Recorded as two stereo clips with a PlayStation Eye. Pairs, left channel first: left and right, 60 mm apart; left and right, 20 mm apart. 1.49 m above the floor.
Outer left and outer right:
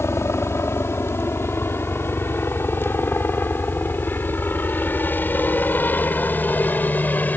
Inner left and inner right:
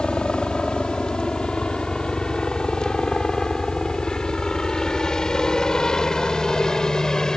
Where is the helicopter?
45° left (ahead or behind); by 7.4 s 30° left (ahead or behind).